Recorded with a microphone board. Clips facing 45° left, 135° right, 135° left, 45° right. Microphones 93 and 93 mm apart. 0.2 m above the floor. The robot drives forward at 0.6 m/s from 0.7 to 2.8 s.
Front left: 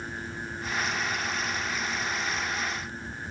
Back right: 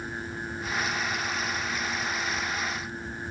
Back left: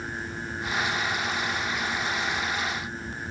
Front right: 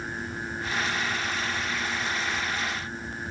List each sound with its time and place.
Only background noise.